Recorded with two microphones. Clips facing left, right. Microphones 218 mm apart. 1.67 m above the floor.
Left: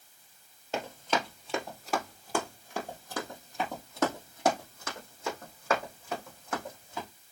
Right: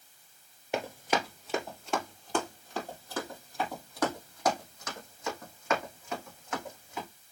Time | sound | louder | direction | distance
0.7 | running footsteps | right 1 dB | 15° right (ahead or behind) | 1.9 m